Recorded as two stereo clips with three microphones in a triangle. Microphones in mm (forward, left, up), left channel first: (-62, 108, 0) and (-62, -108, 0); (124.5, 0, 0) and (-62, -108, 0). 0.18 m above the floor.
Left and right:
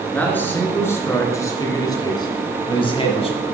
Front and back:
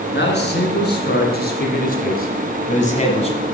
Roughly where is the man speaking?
Ahead.